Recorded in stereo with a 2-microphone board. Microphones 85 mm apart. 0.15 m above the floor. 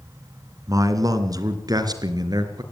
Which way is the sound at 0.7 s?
45° right (ahead or behind).